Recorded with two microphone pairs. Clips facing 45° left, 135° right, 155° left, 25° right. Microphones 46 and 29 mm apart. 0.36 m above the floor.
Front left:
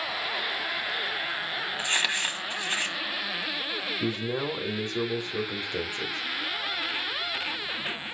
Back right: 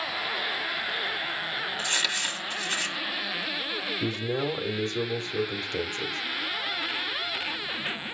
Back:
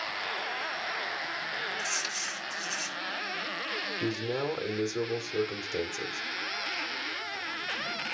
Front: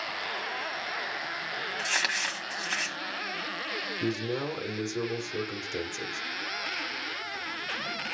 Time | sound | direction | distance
1.8 | crumpling | 20° right | 1.3 m
4.0 | a man speaking | 100° left | 1.2 m